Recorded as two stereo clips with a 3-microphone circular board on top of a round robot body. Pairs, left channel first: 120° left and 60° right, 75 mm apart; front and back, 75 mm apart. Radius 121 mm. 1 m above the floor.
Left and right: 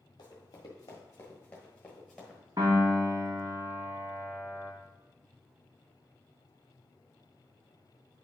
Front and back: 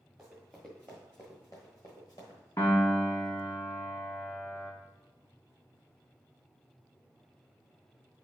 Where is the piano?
40° right, 0.5 m.